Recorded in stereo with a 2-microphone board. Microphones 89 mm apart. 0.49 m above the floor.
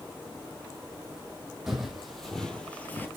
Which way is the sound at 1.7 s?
5° right (ahead or behind).